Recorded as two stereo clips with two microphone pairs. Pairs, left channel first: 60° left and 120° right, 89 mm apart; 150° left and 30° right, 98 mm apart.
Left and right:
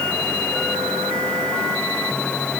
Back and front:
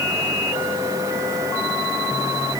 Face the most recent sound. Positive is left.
No sound to turn to.